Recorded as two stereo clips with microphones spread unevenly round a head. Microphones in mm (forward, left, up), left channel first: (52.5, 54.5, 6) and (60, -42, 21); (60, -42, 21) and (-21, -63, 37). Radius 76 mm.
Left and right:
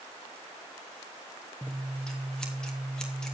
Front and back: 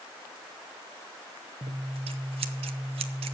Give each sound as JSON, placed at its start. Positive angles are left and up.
{"t": 1.6, "sound": "scissors", "azimuth_deg": 180, "distance_m": 0.8}